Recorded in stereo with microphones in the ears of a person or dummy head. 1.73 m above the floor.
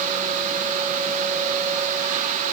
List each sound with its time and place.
Only background noise.